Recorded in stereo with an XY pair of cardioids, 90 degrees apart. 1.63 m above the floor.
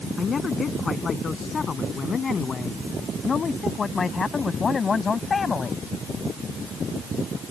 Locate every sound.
0.2 s a man speaking: 45° left; by 5.8 s 40° left